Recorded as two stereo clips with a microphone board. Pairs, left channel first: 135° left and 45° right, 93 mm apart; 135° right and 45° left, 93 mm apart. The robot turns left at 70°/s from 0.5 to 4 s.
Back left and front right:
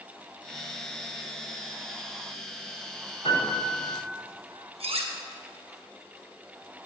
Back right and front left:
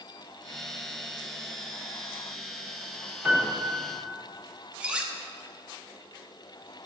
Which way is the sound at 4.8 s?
35° right.